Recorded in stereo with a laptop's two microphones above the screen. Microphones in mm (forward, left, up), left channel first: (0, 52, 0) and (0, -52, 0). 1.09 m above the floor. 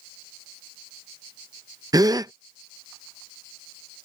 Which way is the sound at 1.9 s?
35° right (ahead or behind).